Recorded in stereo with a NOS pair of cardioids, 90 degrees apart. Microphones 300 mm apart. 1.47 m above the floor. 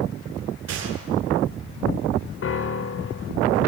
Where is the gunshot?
55° right, 7 m.